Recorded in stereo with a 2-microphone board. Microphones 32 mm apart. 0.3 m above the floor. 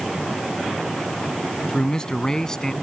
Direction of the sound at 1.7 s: 30° left (ahead or behind).